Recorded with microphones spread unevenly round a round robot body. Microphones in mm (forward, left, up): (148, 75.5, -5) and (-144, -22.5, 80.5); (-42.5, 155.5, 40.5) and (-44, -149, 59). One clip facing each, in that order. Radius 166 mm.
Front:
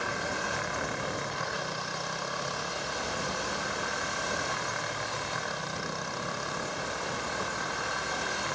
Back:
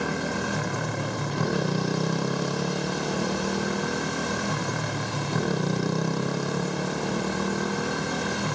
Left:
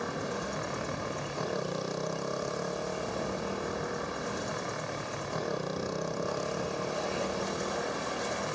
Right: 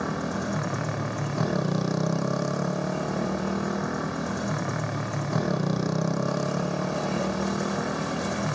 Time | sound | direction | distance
0.0 | a motorcycle | 115° right | ?